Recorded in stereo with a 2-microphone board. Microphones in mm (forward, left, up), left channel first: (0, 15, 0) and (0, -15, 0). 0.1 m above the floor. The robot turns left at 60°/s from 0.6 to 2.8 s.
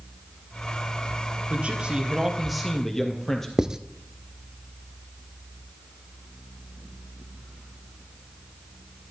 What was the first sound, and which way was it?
A man speaking, 115° right.